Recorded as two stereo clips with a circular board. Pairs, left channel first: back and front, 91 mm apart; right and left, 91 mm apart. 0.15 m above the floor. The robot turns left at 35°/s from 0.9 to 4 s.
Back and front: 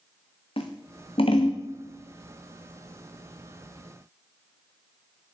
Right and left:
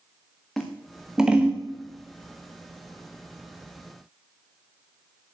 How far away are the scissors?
About 1.9 m.